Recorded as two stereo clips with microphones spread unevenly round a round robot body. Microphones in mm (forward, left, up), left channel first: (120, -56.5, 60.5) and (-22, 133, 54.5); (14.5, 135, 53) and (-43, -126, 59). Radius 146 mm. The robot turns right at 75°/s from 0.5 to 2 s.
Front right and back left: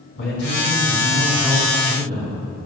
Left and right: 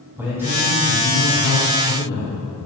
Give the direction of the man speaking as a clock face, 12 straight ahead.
1 o'clock.